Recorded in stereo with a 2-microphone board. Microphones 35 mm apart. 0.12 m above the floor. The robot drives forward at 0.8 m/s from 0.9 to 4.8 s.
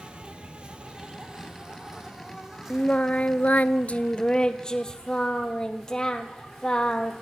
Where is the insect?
30° right (ahead or behind), 1.2 m; by 7.2 s 10° right (ahead or behind), 4 m.